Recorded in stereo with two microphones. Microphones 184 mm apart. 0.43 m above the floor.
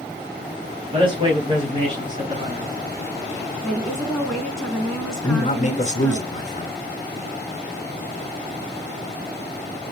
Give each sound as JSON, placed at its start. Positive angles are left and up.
{"t": 0.9, "sound": "a man speaking", "side_deg": -30, "distance_m": 3.5}
{"t": 3.6, "sound": "a woman speaking", "side_deg": 5, "distance_m": 3.5}
{"t": 5.2, "sound": "a man speaking", "side_deg": 40, "distance_m": 1.3}